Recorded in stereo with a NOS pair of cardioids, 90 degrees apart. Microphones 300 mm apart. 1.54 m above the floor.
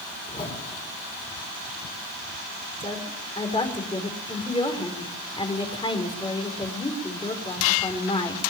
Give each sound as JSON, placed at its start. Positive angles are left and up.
{"t": 0.3, "sound": "a whoosh", "azimuth_deg": 20, "distance_m": 6.5}
{"t": 2.8, "sound": "a woman speaking", "azimuth_deg": 20, "distance_m": 5.0}